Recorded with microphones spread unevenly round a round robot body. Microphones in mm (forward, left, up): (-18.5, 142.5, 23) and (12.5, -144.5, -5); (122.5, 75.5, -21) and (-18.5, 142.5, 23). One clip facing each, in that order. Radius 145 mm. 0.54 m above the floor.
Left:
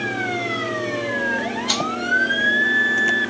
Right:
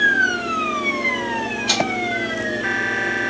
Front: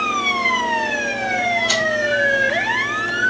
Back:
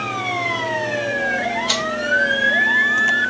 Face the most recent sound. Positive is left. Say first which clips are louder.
# right 3 dB, front 2 dB
turn(degrees=-135)